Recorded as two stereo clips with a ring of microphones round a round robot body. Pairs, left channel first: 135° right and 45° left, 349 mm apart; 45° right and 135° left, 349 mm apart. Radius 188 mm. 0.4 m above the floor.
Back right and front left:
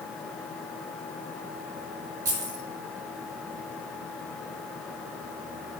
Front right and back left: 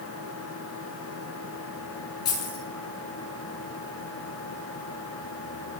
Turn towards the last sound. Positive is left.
turn(degrees=5)